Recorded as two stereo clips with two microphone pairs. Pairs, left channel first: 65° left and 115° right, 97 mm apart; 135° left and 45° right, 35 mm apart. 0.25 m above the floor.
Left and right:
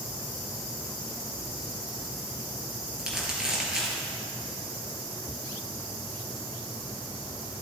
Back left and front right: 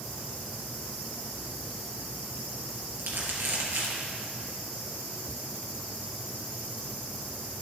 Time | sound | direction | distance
3.0 | crumpling | 35° right | 3 m